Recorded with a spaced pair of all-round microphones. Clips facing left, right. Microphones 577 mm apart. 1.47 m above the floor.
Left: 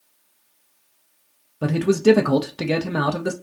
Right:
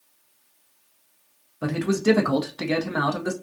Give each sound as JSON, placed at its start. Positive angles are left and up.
{"t": 1.6, "sound": "a man speaking", "side_deg": 65, "distance_m": 0.5}